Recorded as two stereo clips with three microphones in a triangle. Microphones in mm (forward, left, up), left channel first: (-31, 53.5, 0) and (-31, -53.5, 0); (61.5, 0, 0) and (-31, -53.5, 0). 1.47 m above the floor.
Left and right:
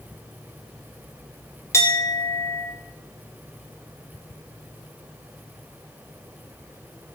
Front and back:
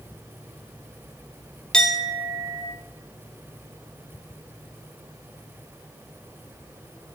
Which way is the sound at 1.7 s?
105° left.